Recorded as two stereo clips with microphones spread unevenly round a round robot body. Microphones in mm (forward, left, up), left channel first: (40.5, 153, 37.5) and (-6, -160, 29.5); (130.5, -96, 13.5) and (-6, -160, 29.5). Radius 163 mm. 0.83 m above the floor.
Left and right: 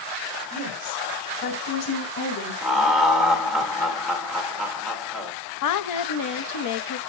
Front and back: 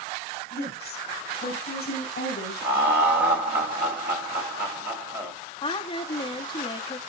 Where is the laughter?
175° left, 2.5 m.